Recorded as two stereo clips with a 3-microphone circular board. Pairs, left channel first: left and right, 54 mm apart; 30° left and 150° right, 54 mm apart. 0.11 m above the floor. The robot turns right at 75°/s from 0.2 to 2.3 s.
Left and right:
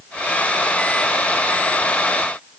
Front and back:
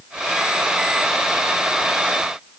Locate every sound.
Only background noise.